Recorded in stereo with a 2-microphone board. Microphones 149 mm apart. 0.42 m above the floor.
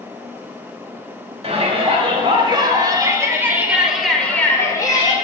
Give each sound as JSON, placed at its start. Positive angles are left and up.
{"t": 1.4, "sound": "a shout", "side_deg": -45, "distance_m": 2.5}